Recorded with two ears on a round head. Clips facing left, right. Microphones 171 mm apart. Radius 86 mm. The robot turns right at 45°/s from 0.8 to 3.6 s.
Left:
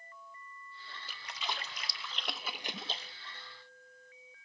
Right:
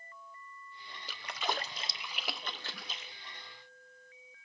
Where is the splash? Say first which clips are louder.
Right 6 dB; 55° right (ahead or behind), 0.9 m; by 3.1 s 35° left (ahead or behind), 0.9 m.